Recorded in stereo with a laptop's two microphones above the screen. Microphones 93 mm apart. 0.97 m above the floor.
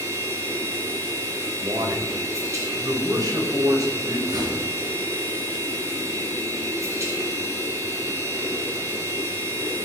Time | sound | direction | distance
0.0 | a machine running | 35° right (ahead or behind) | 3.5 m
1.6 | a man speaking | 45° right (ahead or behind) | 4.5 m
4.3 | a door slam | 45° right (ahead or behind) | 9 m